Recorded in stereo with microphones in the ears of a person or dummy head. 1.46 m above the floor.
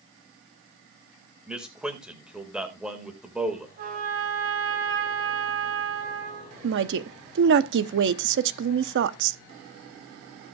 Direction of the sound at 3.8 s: 55° right (ahead or behind).